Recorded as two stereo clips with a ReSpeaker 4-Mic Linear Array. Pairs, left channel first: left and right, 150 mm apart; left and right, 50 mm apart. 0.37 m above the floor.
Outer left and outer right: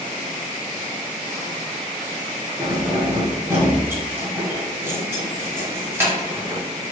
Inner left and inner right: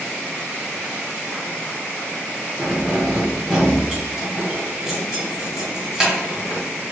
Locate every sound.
2.6 s keys jangling: 15° right (ahead or behind), 1.4 m